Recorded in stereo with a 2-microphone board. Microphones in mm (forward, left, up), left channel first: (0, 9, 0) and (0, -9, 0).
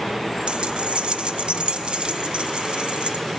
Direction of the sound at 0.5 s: 65° right (ahead or behind).